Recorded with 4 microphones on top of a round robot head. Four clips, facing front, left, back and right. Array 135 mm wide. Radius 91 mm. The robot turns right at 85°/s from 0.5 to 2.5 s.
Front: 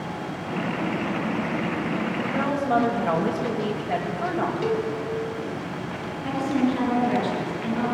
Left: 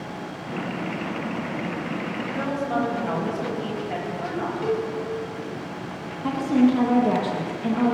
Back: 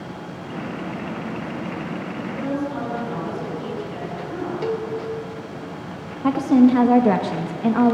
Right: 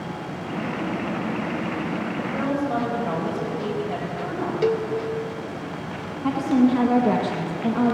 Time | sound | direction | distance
2.2 | a woman speaking | 40° right | 7 m
4.6 | a cowbell | 85° right | 1.7 m
6.2 | a woman speaking | straight behind | 1.7 m